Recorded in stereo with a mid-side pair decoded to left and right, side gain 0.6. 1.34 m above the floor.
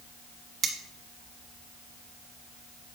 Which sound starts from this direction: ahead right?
Cutlery clinking, at 0.6 s.